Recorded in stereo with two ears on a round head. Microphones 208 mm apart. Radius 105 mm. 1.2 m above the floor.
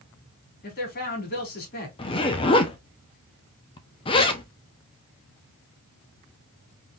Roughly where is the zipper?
Left.